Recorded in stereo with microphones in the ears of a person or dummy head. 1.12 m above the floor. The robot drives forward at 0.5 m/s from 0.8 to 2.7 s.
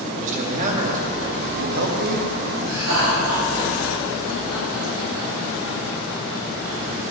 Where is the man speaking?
45° right (ahead or behind), 1.9 m; by 2.3 s 65° right (ahead or behind), 1.5 m.